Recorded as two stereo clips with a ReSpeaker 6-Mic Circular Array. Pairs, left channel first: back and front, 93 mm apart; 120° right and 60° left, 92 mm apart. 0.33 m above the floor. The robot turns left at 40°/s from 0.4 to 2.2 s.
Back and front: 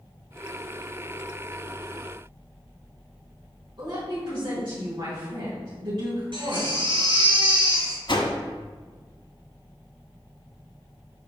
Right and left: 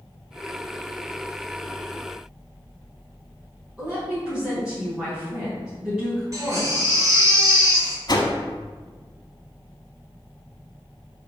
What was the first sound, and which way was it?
A woman speaking, 25° right.